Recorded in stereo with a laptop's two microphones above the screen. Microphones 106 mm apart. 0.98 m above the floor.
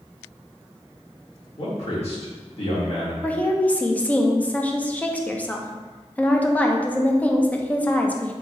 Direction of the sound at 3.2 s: 15° left (ahead or behind).